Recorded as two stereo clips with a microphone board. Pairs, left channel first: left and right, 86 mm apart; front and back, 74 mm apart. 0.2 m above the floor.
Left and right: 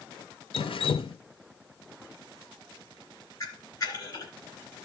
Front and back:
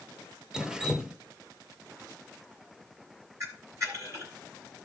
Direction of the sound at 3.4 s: 140° left.